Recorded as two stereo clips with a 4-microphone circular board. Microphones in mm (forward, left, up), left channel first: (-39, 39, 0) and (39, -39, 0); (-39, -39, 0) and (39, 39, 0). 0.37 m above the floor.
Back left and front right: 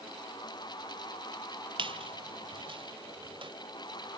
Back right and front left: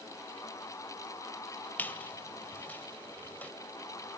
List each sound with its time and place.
1.8 s a squeak: 65° right, 1.1 m